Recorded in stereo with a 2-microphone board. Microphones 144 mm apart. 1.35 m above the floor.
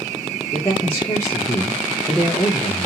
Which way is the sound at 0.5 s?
20° left (ahead or behind).